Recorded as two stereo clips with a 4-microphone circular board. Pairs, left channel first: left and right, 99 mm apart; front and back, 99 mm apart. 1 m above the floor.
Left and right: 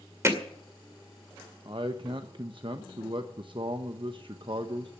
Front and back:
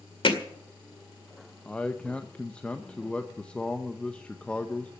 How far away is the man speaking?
About 0.9 m.